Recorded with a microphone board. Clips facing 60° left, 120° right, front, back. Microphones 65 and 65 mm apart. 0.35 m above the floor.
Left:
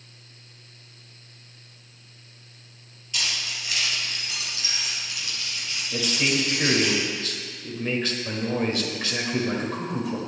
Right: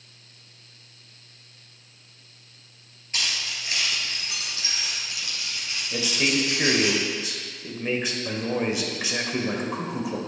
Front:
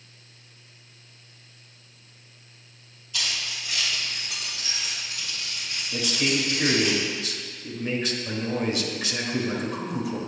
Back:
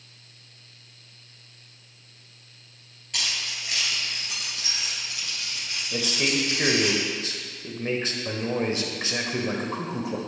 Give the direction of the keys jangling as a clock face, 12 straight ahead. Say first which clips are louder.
Even, even; 6 o'clock.